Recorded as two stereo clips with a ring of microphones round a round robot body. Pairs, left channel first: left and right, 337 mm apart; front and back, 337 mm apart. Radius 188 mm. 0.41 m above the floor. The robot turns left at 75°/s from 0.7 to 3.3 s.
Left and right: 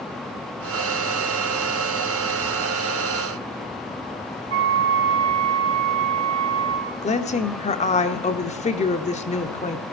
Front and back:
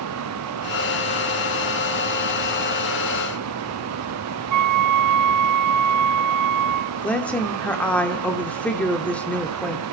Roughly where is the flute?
Behind right.